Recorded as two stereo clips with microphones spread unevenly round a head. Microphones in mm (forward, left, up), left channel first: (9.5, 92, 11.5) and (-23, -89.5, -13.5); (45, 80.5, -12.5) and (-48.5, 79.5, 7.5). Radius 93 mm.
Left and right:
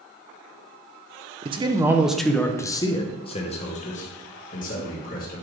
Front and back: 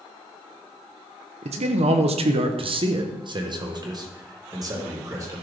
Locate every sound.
1.4 s a man speaking: 155° right, 0.8 m; by 5.4 s 125° left, 2.5 m